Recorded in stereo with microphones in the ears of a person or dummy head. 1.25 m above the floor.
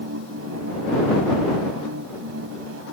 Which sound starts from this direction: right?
A machine running, at 0.0 s.